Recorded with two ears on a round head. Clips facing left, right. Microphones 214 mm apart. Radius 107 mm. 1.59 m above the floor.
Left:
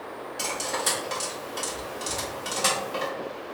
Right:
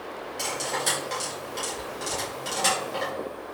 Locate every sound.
0.4 s cutlery clinking: 10° left (ahead or behind), 1.7 m